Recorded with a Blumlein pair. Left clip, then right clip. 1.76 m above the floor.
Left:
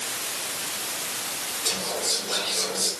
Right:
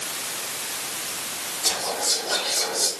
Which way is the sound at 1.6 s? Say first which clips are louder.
Right 3 dB; 50° right.